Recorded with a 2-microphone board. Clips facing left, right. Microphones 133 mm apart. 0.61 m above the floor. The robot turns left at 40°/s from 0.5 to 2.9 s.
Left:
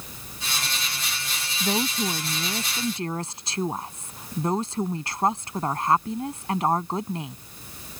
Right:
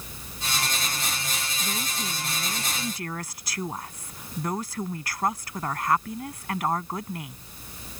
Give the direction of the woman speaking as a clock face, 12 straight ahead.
9 o'clock.